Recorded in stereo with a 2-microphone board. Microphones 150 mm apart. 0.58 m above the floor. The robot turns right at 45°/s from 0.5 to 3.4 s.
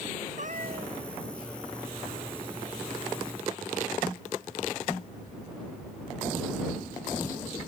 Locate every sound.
0.4 s a cat meowing: 60° right (ahead or behind); by 1.0 s 80° right